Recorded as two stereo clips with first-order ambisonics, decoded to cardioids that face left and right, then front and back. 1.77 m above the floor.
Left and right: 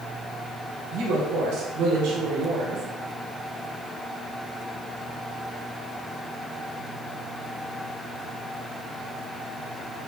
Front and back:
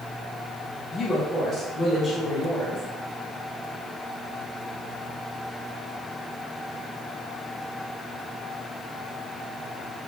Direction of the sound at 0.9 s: 85° right.